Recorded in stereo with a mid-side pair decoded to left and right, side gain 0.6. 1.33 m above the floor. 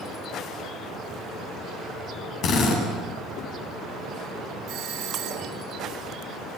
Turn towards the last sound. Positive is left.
turn(degrees=-60)